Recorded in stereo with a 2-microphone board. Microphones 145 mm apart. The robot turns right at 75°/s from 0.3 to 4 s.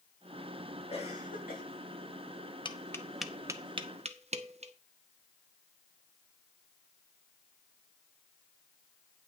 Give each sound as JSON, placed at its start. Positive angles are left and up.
{"t": 0.9, "sound": "a cough", "azimuth_deg": 40, "distance_m": 3.5}
{"t": 2.6, "sound": "tapping", "side_deg": 35, "distance_m": 0.8}